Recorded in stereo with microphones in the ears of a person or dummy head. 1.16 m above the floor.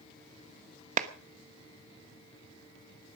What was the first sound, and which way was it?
A clap, 50° right (ahead or behind).